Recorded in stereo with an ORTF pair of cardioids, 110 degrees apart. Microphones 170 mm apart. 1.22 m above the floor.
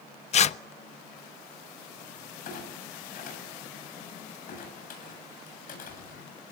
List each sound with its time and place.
0.3 s tearing paper: 45° left, 0.6 m
2.5 s a clunk: 55° left, 8 m